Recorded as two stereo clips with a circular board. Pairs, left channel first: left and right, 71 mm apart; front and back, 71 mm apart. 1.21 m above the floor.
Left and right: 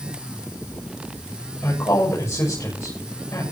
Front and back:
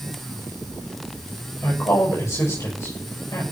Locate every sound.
1.6 s a woman speaking: 45° left, 6.5 m